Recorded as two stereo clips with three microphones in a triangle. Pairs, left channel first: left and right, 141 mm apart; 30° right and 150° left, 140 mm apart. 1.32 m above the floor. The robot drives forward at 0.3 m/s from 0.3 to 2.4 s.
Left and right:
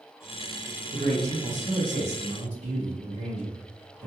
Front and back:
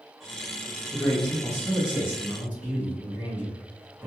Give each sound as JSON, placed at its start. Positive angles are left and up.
{"t": 0.9, "sound": "a man speaking", "azimuth_deg": -105, "distance_m": 0.8}